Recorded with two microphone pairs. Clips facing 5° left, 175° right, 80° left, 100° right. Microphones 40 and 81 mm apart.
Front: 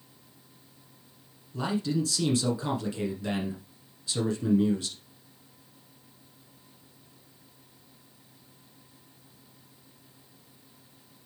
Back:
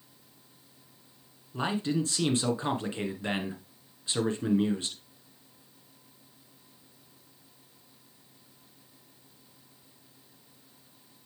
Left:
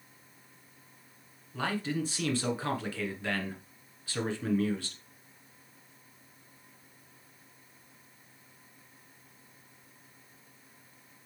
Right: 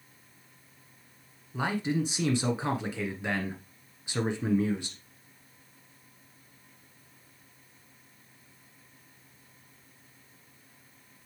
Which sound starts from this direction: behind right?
A man speaking, at 1.5 s.